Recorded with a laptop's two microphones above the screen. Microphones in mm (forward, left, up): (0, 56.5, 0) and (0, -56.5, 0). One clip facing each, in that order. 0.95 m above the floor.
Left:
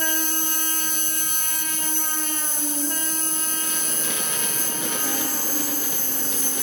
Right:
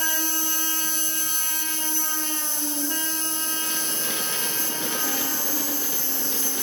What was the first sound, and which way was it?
An insect, 45° left (ahead or behind).